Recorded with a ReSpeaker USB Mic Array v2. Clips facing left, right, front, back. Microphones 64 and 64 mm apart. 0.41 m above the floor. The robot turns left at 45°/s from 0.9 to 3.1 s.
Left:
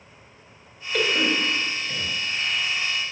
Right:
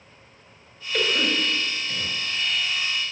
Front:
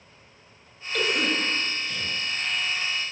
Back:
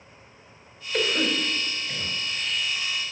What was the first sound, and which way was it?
A cough, 170° left.